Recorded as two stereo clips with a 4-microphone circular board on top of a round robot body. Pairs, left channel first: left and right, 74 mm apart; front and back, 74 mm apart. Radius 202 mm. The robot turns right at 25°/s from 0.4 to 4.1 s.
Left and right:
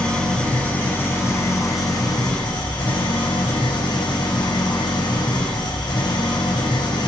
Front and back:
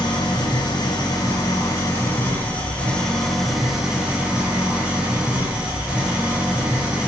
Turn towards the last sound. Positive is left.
turn(degrees=105)